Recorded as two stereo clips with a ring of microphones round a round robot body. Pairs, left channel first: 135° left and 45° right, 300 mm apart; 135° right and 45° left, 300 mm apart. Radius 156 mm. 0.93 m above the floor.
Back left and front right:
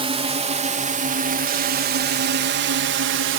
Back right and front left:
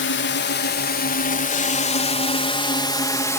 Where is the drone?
110° right; by 3.4 s 55° right.